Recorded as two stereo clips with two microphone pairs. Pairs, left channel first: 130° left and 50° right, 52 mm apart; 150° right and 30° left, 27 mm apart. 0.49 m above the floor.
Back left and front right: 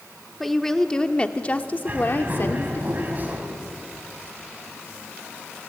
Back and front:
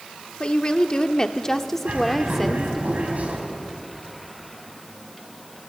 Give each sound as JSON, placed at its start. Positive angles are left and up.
{"t": 0.4, "sound": "a woman speaking", "azimuth_deg": -145, "distance_m": 1.0}
{"t": 1.9, "sound": "a bird", "azimuth_deg": 5, "distance_m": 4.0}